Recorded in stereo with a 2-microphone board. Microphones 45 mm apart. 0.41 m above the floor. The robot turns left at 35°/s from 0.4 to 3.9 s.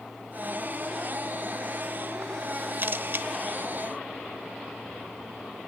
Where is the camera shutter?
55° right (ahead or behind), 0.9 m.